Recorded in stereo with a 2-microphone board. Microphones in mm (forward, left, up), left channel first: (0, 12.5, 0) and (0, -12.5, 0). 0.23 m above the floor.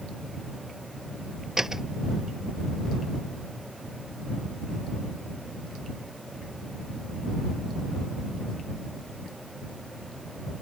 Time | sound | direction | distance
1.6 | a door slam | 20° right (ahead or behind) | ?